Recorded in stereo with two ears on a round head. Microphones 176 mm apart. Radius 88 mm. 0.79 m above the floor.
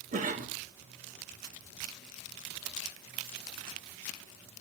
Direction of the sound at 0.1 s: 40° right (ahead or behind).